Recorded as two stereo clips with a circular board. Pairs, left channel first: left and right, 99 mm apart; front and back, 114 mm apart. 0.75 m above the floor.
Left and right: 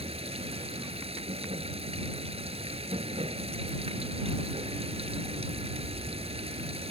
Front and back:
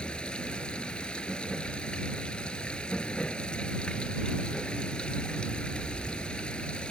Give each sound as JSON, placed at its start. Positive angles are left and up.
{"t": 0.0, "sound": "running water", "azimuth_deg": -80}